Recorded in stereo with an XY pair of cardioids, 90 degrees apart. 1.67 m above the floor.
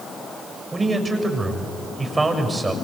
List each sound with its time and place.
0.7 s a man speaking: 25° right, 7 m